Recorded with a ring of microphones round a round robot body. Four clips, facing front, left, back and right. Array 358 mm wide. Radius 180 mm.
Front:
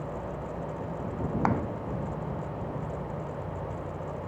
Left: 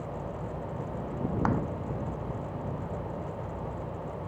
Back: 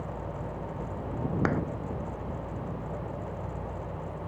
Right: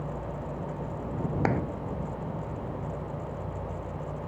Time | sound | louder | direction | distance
1.4 | a clap | right 1 dB, front 2 dB | 125° right | ?